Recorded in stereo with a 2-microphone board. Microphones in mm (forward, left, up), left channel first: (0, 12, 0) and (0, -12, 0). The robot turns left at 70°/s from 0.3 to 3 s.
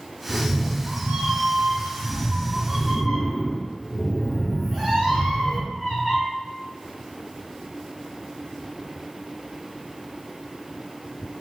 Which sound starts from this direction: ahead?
A cat meowing, at 0.3 s.